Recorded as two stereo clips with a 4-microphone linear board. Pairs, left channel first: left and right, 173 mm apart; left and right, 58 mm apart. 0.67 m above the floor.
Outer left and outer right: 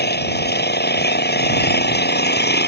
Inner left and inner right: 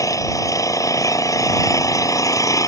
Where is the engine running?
65° left (ahead or behind).